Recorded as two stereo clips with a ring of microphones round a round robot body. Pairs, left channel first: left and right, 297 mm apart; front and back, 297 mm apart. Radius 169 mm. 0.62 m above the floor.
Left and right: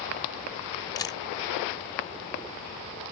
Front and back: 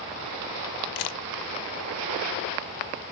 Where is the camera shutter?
10° left, 0.6 m.